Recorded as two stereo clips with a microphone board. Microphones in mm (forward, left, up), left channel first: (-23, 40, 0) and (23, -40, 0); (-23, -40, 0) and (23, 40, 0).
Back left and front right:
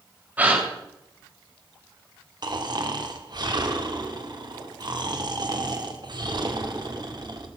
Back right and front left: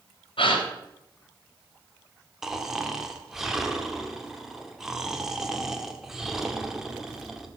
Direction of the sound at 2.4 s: 25° right.